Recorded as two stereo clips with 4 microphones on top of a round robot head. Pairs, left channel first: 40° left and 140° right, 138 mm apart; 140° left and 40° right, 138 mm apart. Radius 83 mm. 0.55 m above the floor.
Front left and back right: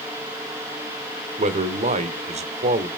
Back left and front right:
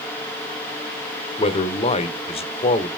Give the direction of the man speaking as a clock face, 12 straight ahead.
6 o'clock.